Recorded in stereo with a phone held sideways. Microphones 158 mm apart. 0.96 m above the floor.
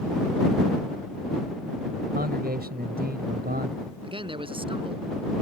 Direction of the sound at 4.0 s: 35° right (ahead or behind).